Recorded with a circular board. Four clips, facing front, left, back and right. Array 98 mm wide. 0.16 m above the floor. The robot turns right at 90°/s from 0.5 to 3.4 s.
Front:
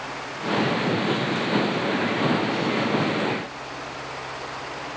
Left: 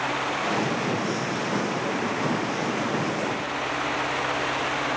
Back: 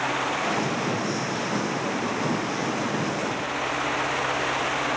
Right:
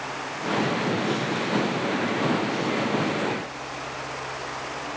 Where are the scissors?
I don't hear scissors.